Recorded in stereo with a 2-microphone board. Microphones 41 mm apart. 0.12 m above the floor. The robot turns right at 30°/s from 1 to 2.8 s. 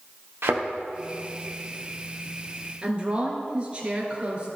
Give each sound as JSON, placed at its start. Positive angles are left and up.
{"t": 0.4, "sound": "a thud", "side_deg": -80, "distance_m": 2.0}
{"t": 2.8, "sound": "a woman speaking", "side_deg": -30, "distance_m": 2.0}